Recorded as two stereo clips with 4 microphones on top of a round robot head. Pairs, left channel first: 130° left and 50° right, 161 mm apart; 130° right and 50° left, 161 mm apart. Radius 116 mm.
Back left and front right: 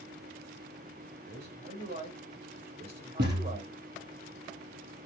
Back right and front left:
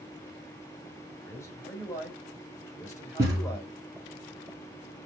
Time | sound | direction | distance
1.2 | a man speaking | 60° right | 2.5 m
3.2 | a thud | 25° right | 3.5 m